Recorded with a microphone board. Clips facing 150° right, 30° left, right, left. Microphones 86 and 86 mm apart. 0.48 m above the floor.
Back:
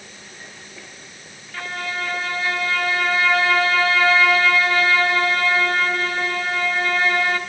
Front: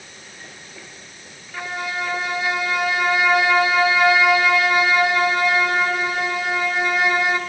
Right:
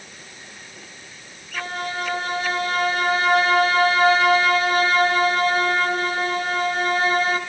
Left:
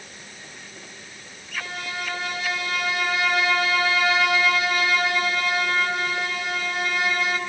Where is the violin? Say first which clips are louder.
Front 1 dB, right 5 dB; 45° right, 1.7 m.